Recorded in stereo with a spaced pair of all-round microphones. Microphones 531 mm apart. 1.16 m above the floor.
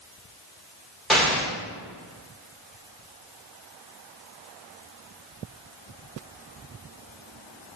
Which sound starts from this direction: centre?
An explosion, at 1.1 s.